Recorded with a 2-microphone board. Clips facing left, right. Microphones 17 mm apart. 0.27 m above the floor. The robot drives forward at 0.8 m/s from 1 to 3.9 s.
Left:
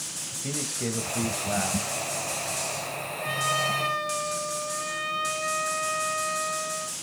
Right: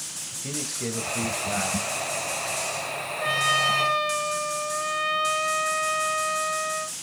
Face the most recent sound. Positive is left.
turn(degrees=-20)  # may be behind; listen again after turning